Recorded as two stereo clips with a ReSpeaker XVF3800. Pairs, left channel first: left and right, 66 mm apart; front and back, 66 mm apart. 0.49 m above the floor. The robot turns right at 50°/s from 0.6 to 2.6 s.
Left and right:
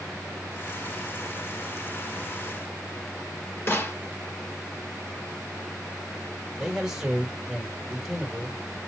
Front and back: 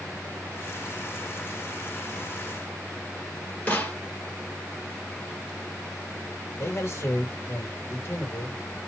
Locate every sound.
3.7 s a snare drum: 55° left, 1.7 m
6.6 s a man speaking: 10° right, 1.6 m